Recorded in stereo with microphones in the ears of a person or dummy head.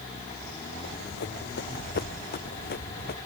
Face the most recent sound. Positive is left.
turn(degrees=60)  # may be behind; listen again after turning